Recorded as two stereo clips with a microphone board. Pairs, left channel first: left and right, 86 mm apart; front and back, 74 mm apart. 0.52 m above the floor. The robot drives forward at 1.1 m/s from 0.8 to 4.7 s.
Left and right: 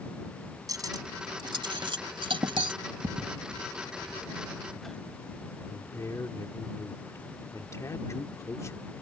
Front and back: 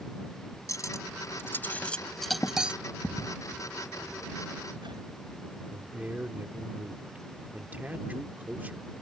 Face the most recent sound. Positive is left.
turn(degrees=120)